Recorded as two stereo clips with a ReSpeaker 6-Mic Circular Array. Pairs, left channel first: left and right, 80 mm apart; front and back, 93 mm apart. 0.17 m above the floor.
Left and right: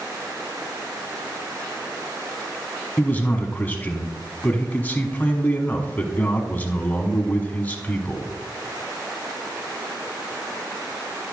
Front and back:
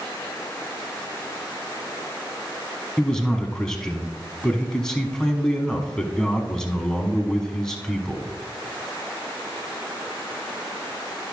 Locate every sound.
3.0 s a man speaking: 70° left, 1.0 m